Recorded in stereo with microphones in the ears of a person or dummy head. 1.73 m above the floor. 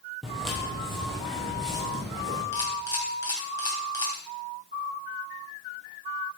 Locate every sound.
0.2 s footsteps: 5° left (ahead or behind), 2.5 m; by 2.4 s 5° right (ahead or behind), 3.5 m
2.5 s a camera shutter: 20° left (ahead or behind), 2.5 m